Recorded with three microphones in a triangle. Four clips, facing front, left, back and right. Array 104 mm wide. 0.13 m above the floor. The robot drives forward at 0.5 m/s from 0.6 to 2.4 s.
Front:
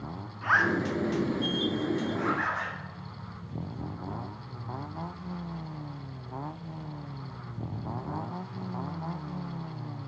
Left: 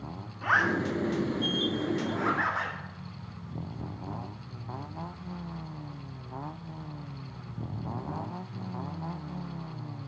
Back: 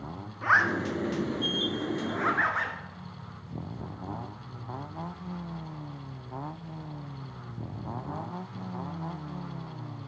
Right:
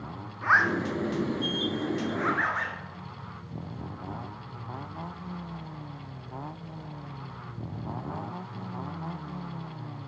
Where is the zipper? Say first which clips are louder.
Right 2 dB, back 1 dB; 125° right, 1.4 m; by 2.8 s 155° right, 1.8 m.